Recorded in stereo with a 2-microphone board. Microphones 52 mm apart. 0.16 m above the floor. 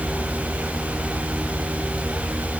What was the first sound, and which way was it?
Only background noise.